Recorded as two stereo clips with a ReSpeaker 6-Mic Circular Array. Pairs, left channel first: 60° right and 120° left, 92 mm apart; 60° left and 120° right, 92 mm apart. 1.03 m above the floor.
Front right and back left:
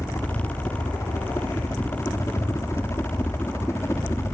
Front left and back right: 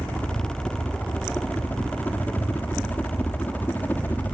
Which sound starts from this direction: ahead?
A helicopter, at 0.0 s.